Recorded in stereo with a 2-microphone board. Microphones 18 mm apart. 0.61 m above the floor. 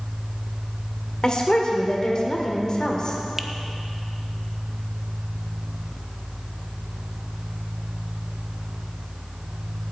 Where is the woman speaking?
35° left (ahead or behind), 1.9 m.